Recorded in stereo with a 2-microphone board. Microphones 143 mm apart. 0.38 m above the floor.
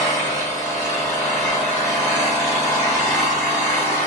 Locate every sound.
0.0 s an engine running: 20° left (ahead or behind), 1.5 m